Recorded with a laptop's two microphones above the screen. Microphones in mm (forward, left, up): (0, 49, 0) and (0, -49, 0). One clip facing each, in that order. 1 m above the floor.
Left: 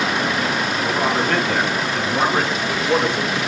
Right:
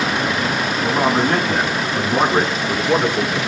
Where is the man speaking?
25° right (ahead or behind), 7.5 m; by 3.4 s 15° right (ahead or behind), 8 m.